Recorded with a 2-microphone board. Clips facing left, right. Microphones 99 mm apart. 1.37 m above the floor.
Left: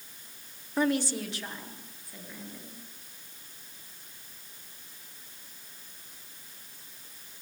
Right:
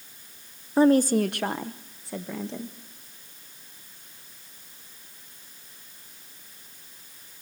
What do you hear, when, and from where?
0.8 s a woman speaking: 30° right (ahead or behind), 0.7 m; by 2.7 s 85° right, 1.9 m